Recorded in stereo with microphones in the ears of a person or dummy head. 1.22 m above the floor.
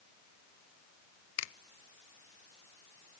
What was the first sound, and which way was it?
A finger snap, 85° left.